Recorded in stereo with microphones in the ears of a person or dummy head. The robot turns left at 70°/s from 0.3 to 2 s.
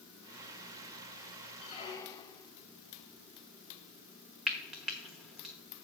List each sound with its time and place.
1.6 s a squeak: 25° left (ahead or behind), 0.7 m; by 2.5 s 15° left (ahead or behind), 0.7 m
4.5 s frying: 5° right (ahead or behind), 1.0 m